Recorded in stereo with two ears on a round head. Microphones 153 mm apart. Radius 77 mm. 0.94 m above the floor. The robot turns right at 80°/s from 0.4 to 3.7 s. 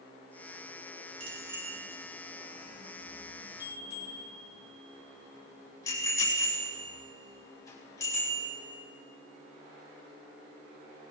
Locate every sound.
1.2 s a bicycle bell: 40° right (ahead or behind), 5 m; by 8.5 s 20° left (ahead or behind), 5 m